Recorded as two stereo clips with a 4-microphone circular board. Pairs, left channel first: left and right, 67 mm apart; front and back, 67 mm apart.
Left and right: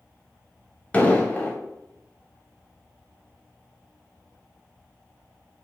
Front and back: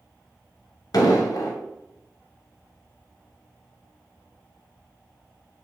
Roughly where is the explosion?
Ahead.